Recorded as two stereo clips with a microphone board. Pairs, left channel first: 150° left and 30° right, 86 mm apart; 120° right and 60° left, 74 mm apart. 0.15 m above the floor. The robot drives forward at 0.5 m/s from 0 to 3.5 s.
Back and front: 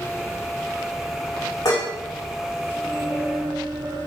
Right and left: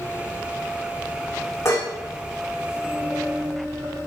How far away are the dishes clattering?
About 8 m.